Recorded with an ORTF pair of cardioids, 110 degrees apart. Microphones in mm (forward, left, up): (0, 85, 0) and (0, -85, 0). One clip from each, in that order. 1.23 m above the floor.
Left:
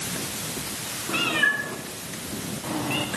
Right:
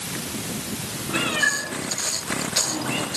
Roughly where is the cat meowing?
Ahead.